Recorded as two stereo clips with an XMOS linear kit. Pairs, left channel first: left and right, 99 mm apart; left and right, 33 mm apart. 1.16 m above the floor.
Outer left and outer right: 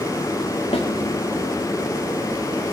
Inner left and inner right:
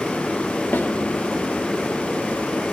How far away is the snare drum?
About 1.8 m.